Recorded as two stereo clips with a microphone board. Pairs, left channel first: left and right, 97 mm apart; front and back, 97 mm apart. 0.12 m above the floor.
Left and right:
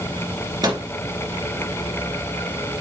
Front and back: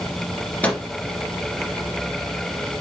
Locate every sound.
0.6 s a microwave: 70° right, 1.9 m